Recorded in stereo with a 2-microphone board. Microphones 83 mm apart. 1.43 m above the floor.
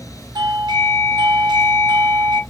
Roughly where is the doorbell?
Right.